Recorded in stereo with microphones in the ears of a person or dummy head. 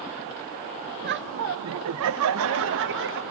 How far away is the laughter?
About 0.9 m.